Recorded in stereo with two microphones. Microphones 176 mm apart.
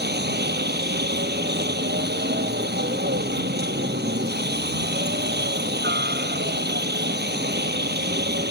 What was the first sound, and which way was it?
A helicopter, 70° right (ahead or behind).